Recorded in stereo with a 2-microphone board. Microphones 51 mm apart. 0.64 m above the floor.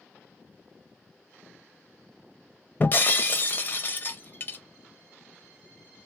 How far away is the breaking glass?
About 0.5 m.